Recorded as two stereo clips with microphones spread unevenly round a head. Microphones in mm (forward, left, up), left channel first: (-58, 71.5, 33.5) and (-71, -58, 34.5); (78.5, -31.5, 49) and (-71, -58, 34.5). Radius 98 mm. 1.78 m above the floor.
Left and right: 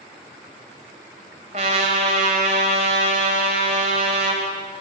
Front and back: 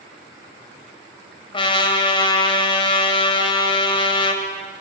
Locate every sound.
1.5 s a trumpet: 40° right, 3 m